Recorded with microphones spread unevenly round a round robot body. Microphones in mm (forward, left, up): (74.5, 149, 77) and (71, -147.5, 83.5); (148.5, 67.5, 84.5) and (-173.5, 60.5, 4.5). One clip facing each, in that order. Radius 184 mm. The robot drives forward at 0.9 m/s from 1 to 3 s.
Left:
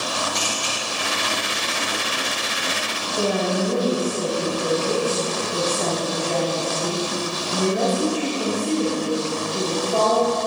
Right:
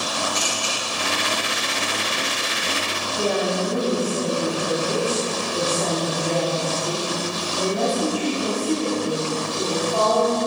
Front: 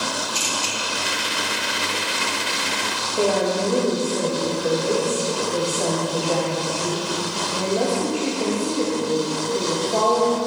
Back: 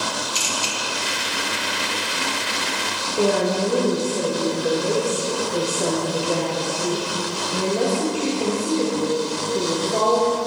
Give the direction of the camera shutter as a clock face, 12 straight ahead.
7 o'clock.